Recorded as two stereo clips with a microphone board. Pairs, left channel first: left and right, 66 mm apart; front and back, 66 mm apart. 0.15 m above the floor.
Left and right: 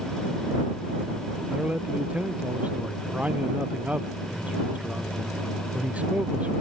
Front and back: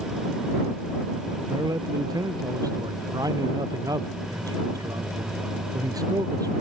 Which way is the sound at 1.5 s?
160° right.